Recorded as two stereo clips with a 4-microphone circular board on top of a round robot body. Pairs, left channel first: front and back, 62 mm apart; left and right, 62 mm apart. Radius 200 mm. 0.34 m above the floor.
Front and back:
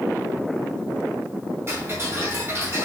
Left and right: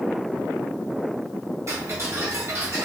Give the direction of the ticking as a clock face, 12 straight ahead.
4 o'clock.